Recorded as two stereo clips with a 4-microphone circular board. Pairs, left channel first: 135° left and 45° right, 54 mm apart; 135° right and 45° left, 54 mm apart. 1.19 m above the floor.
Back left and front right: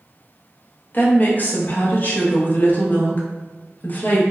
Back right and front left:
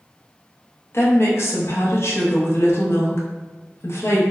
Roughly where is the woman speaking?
Behind.